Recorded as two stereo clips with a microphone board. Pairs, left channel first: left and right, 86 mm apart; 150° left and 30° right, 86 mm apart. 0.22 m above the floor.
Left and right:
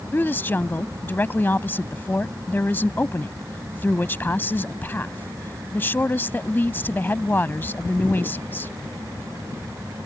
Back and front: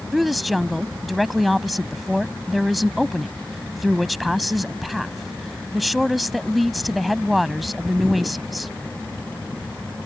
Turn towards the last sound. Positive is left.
turn(degrees=60)